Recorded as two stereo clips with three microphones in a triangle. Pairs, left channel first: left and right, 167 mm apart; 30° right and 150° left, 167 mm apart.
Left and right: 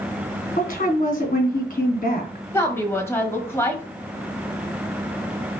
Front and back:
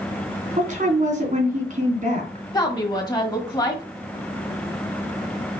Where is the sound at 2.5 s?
20° left, 1.4 m.